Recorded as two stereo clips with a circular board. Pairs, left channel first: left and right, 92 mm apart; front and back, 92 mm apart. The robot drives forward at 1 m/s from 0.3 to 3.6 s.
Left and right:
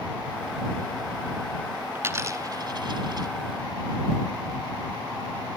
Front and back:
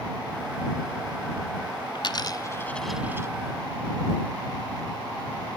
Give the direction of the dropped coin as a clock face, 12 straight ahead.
1 o'clock.